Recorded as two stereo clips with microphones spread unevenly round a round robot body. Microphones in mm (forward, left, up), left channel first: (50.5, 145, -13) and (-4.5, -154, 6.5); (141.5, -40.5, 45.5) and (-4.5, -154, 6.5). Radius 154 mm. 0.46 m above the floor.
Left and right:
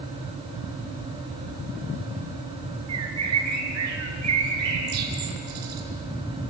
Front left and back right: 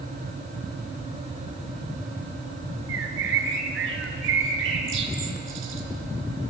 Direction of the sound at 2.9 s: 145° right.